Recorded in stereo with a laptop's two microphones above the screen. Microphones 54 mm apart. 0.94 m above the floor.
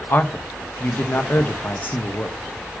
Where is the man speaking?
40° left (ahead or behind), 0.7 m.